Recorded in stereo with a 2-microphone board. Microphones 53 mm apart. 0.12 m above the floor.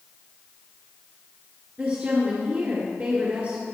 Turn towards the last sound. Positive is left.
turn(degrees=-25)  # may be behind; listen again after turning